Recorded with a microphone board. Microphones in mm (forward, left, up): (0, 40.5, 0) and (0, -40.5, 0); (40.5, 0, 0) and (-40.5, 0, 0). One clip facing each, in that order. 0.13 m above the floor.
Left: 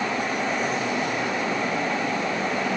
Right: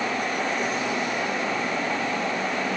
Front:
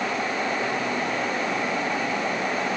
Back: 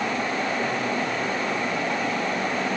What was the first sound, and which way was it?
Only background noise.